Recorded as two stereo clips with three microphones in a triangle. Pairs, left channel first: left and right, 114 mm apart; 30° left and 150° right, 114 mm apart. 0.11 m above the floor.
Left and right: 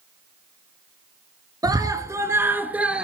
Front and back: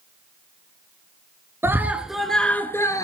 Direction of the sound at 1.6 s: 100° right.